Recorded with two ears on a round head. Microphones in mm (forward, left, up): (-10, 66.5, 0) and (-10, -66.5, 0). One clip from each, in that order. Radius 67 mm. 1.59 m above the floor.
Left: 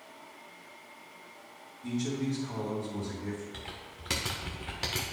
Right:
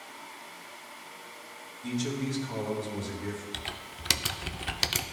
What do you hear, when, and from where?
1.8 s a man speaking: 40° right (ahead or behind), 2 m
3.5 s typing on a keyboard: 85° right, 0.5 m